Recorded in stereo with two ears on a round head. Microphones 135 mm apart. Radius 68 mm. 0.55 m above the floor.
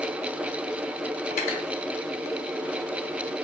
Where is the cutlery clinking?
50° left (ahead or behind), 0.8 m.